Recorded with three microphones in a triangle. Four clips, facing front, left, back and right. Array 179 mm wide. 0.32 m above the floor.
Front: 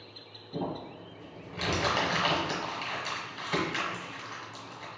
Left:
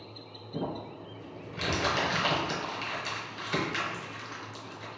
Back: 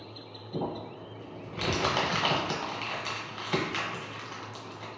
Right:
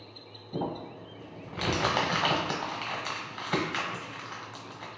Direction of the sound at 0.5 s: 85° right.